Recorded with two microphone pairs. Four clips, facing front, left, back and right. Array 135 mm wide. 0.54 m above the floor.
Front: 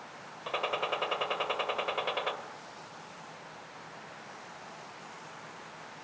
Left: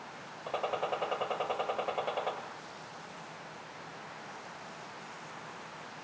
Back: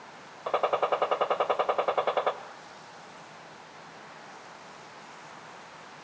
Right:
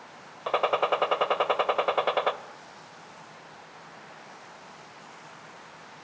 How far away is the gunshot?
About 1.4 m.